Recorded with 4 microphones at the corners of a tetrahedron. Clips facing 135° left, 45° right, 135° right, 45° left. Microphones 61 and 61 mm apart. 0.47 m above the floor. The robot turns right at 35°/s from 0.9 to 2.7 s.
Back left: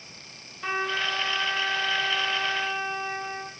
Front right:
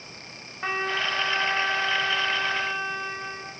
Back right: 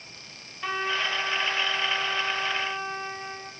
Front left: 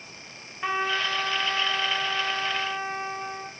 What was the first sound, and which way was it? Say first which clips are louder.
A trumpet: front right 1 dB, front left 2 dB; 15° right.